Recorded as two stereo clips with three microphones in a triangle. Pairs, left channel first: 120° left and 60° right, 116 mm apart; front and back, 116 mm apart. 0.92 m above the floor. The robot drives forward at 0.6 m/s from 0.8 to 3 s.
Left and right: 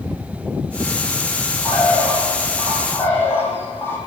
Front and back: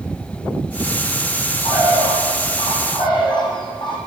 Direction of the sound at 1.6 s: 45° left.